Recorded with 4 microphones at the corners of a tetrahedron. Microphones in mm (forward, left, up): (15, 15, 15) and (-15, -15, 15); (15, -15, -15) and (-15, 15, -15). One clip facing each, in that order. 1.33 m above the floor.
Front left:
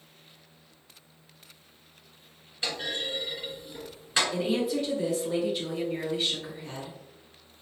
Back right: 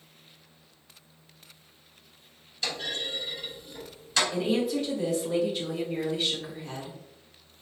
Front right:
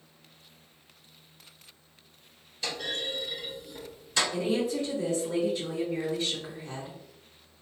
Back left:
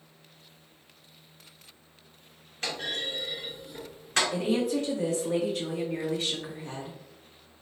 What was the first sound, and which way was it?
A clunk, 105° left.